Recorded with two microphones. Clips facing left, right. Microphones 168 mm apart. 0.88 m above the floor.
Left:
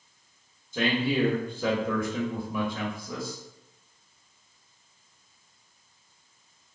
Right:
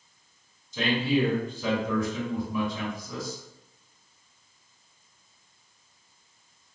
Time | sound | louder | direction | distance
0.7 | a man speaking | right 1 dB | 55° left (ahead or behind) | 1.2 m